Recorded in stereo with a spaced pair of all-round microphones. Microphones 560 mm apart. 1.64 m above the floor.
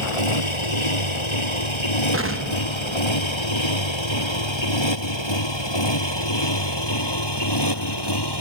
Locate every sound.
0.0 s a motorcycle: 65° left (ahead or behind); by 8.4 s 45° left (ahead or behind)
2.1 s an explosion: 25° right (ahead or behind)